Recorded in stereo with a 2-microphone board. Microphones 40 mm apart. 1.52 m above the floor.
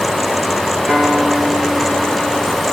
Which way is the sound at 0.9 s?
30° right (ahead or behind).